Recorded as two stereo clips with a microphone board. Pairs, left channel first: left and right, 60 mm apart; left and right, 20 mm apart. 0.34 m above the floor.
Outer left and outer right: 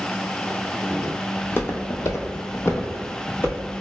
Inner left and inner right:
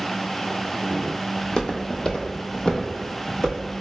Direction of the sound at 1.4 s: 35° left (ahead or behind).